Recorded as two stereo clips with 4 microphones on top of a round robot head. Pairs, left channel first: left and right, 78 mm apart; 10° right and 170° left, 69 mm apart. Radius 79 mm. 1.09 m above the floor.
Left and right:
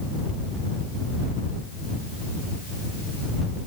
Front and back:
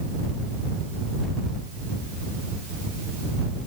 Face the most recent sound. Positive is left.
No sound to turn to.